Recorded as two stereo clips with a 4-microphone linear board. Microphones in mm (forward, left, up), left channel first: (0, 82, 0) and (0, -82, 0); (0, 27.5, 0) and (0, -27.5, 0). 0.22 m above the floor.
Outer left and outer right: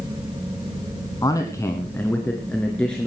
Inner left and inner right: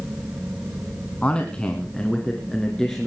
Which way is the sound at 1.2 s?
20° left (ahead or behind).